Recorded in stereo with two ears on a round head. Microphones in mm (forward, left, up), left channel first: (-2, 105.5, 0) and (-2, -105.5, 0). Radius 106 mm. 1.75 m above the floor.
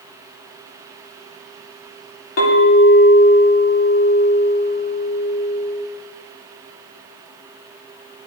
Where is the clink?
60° left (ahead or behind), 1.8 m.